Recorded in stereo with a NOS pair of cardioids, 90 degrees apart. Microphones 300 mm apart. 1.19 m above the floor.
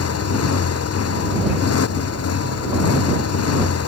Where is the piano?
I don't hear a piano.